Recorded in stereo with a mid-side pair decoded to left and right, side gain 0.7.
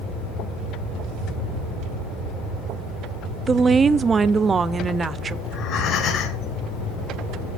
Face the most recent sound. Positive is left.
turn(degrees=50)